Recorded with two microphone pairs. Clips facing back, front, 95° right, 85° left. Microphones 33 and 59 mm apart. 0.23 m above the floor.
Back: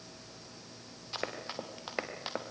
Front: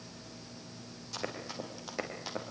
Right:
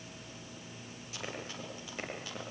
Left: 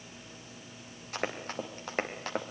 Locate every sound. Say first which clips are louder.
1.1 s running footsteps: back 1 dB, left 7 dB; 120° left, 6 m